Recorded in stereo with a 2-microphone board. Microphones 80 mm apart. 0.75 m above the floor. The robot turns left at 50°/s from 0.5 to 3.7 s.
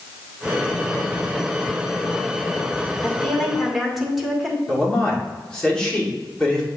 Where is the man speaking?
10° left (ahead or behind), 2.5 m.